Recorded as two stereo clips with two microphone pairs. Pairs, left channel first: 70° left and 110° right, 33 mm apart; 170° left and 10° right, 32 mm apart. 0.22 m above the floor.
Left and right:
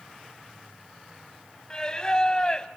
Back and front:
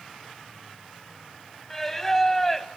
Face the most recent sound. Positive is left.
turn(degrees=110)